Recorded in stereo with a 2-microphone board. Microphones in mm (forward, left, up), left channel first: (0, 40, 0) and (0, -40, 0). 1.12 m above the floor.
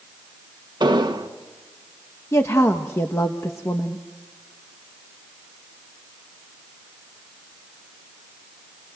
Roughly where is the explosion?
Right.